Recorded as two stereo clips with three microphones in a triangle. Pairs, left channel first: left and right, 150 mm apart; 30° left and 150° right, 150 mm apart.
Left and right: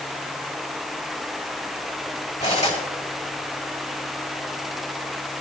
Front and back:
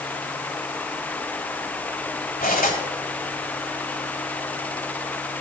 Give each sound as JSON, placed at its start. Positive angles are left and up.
{"t": 2.4, "sound": "cutlery clinking", "azimuth_deg": 50, "distance_m": 6.0}